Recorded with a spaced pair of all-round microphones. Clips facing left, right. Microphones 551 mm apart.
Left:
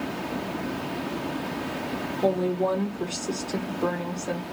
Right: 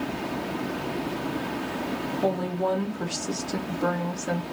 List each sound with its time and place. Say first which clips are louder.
2.2 s a woman speaking: left 4 dB; 35° right (ahead or behind), 0.7 m